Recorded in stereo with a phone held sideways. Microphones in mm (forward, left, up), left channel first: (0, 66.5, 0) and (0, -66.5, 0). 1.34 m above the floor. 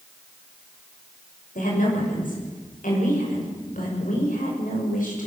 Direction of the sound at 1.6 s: 85° left.